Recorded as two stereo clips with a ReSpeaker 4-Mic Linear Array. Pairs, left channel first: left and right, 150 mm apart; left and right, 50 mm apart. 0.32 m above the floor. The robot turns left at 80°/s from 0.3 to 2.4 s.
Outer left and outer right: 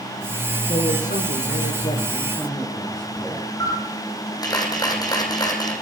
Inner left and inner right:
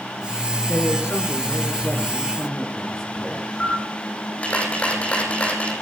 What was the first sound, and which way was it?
A man speaking, 145° left.